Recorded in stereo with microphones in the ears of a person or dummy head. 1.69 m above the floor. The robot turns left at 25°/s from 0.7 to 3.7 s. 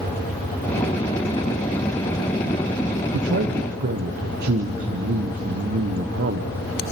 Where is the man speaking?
70° right (ahead or behind), 1.2 m; by 6.6 s 55° right (ahead or behind), 1.2 m.